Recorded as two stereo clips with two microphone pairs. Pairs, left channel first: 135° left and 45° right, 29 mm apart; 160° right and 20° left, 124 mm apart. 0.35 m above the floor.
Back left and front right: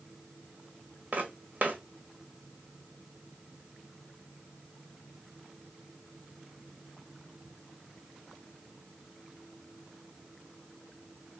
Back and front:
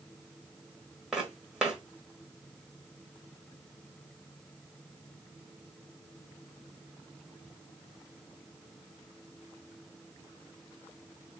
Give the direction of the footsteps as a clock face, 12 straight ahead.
2 o'clock.